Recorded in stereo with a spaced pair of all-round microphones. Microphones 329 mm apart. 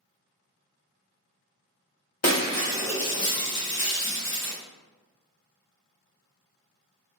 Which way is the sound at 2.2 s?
50° left (ahead or behind).